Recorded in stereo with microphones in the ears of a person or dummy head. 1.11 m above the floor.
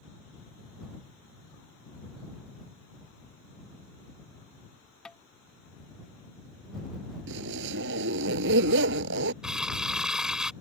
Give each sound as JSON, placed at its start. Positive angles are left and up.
{"t": 5.0, "sound": "tapping", "side_deg": 0}
{"t": 7.3, "sound": "a zipper", "side_deg": -70}
{"t": 9.4, "sound": "crumpling", "side_deg": 0}